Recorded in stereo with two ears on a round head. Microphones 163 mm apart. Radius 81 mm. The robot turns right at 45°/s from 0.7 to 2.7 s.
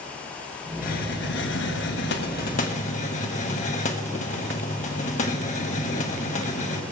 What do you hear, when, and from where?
0.8 s a hiss: 50° left, 1.3 m; by 6.8 s 135° left, 1.3 m